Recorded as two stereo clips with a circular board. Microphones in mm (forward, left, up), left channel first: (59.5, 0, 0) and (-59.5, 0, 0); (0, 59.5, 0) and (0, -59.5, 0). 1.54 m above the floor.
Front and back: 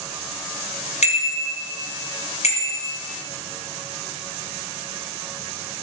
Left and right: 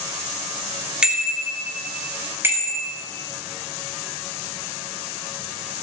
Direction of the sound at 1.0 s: 5° right.